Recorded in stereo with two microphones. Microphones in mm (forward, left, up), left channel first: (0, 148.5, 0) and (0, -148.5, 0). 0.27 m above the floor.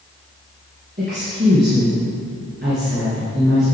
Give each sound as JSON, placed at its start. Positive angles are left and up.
{"t": 1.0, "sound": "a woman speaking", "side_deg": -35, "distance_m": 3.5}